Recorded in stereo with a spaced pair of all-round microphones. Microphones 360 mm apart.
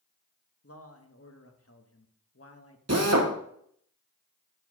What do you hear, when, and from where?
0.6 s a man speaking: 40° left (ahead or behind), 1.0 m
2.9 s a drill: 45° right (ahead or behind), 1.1 m